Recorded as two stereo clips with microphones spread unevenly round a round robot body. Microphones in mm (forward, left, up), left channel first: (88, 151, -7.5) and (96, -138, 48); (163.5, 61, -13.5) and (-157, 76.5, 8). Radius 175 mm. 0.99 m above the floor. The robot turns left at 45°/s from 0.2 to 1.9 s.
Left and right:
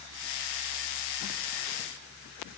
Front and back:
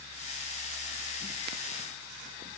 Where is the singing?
I don't hear singing.